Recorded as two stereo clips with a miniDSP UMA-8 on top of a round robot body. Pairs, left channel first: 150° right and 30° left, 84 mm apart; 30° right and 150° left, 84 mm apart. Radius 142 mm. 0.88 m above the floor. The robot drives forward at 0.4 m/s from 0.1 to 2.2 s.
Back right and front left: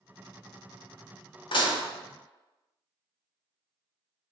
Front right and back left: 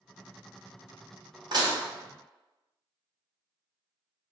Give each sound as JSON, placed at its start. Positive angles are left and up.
{"t": 1.5, "sound": "dishes clattering", "azimuth_deg": -175, "distance_m": 0.7}